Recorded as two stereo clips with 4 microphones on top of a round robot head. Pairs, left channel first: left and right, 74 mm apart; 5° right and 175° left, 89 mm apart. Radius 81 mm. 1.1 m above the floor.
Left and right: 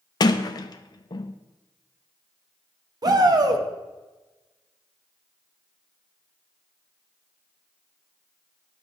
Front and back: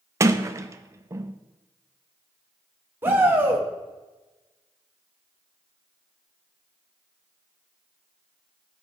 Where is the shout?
115° right, 1.7 m.